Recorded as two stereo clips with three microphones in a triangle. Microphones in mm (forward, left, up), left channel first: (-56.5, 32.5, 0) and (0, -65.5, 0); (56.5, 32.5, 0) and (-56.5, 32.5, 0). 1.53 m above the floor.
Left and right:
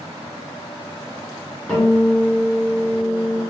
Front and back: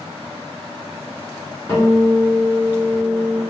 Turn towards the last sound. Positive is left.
turn(degrees=45)